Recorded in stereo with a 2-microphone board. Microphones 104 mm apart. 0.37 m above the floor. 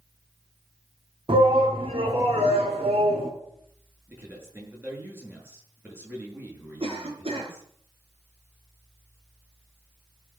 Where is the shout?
60° right (ahead or behind), 2.5 m; by 3.3 s 75° right (ahead or behind), 3.5 m.